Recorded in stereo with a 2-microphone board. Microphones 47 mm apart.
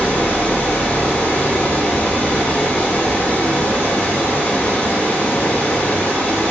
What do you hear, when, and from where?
0.0 s running water: 35° left (ahead or behind), 0.9 m